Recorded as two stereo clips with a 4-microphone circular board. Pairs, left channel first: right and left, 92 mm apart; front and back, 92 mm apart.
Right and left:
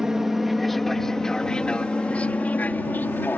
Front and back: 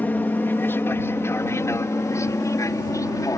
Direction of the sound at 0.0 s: 15° left.